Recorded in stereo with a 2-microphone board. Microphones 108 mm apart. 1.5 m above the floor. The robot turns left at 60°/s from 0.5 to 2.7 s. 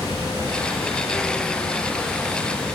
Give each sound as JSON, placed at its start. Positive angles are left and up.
{"t": 0.0, "sound": "running water", "azimuth_deg": 140, "distance_m": 2.5}